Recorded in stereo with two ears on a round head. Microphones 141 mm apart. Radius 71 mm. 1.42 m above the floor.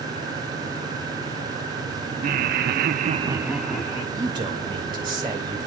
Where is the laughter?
55° right (ahead or behind), 1.1 m; by 4.0 s 15° left (ahead or behind), 1.1 m.